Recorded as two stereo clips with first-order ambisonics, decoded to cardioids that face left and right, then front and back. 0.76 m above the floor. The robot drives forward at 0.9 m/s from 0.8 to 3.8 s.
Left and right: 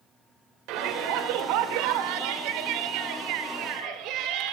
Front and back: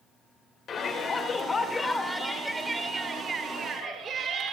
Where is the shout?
65° right, 2.5 m; by 4.5 s 120° right, 3 m.